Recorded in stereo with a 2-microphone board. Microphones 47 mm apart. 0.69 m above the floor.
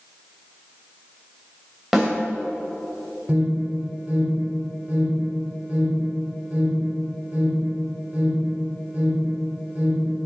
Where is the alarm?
30° right (ahead or behind), 3 m.